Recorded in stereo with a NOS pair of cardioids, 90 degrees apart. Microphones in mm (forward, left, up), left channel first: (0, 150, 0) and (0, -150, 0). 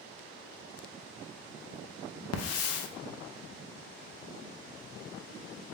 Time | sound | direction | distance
2.3 | a hiss | 60° left | 0.6 m